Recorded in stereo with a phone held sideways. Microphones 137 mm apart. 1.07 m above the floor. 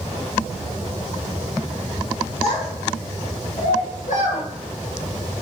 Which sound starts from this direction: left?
A child speaking, at 2.4 s.